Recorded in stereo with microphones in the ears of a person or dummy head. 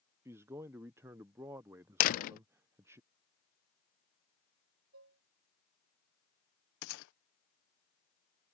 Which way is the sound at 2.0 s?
50° left (ahead or behind).